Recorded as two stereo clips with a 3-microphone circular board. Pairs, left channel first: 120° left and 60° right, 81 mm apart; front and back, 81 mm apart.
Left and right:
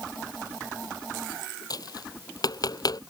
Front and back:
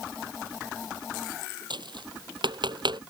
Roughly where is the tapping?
Behind.